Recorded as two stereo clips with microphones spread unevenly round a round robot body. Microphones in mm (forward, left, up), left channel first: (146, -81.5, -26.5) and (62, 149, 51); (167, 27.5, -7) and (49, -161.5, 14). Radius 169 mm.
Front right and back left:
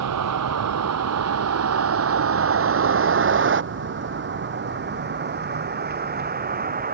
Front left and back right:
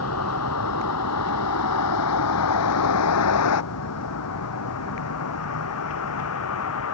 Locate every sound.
0.0 s a vehicle: 105° left; by 6.9 s 60° left